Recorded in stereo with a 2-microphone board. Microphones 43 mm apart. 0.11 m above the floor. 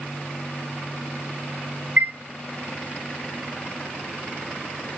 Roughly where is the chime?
Right.